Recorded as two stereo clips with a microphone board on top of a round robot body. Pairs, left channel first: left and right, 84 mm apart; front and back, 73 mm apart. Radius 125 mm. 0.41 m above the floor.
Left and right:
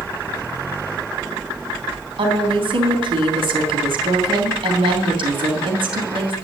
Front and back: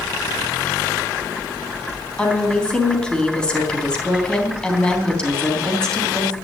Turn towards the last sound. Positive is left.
turn(degrees=-75)